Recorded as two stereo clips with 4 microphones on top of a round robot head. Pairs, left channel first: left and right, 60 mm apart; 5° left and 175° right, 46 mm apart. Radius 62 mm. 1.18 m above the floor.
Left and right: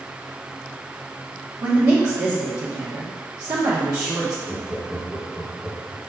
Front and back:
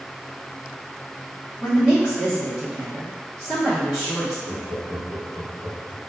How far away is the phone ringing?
I don't hear a phone ringing.